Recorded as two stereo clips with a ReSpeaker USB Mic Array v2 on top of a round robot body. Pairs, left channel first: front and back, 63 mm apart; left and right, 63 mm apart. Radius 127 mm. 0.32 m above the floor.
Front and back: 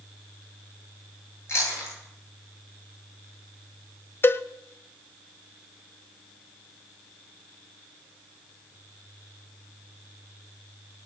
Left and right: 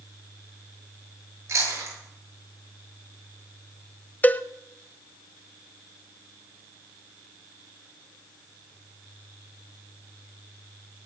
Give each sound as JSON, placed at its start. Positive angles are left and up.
{"t": 1.5, "sound": "chewing", "azimuth_deg": -45, "distance_m": 9.0}
{"t": 4.2, "sound": "a cowbell", "azimuth_deg": 40, "distance_m": 0.8}